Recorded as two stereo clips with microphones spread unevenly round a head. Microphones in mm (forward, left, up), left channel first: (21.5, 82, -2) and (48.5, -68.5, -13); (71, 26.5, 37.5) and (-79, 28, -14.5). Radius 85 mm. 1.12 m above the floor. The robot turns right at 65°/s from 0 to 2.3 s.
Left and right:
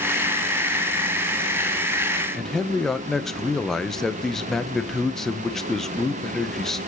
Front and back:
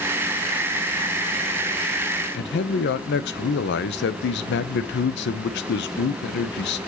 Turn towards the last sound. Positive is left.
turn(degrees=10)